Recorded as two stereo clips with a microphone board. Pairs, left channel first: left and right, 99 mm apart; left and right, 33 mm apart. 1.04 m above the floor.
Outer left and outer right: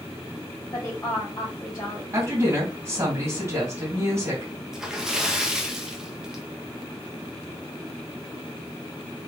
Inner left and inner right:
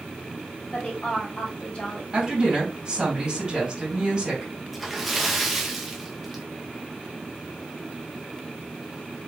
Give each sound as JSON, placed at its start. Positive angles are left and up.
{"t": 0.7, "sound": "a woman speaking", "side_deg": 40, "distance_m": 1.6}
{"t": 2.1, "sound": "a woman speaking", "side_deg": -25, "distance_m": 2.5}
{"t": 4.7, "sound": "a splash", "side_deg": -5, "distance_m": 0.8}